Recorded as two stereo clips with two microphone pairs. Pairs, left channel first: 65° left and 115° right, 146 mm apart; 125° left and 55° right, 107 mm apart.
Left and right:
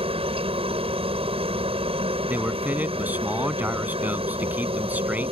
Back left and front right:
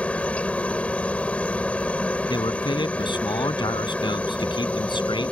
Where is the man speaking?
165° left.